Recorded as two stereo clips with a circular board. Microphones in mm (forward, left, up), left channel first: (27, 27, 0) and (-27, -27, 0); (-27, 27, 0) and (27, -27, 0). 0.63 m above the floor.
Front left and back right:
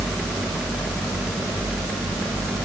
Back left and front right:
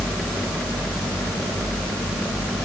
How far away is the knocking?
I don't hear knocking.